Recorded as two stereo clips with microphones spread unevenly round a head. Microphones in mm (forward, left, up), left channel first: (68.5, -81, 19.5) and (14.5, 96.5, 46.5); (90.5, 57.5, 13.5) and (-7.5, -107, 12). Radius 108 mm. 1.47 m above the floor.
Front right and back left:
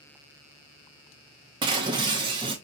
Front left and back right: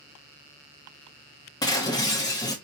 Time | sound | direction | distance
1.6 | breaking glass | 110° left | 0.6 m